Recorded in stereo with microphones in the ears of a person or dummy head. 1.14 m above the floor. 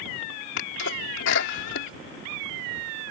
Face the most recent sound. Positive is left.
turn(degrees=65)  # may be behind; listen again after turning